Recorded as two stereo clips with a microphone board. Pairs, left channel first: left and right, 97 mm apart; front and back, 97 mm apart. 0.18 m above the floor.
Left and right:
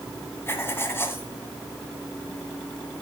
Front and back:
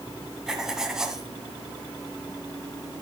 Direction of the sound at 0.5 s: 100° left.